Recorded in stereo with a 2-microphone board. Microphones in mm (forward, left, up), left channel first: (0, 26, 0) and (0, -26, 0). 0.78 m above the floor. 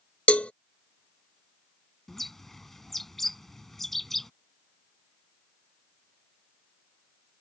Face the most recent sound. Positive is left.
turn(degrees=5)  # may be behind; listen again after turning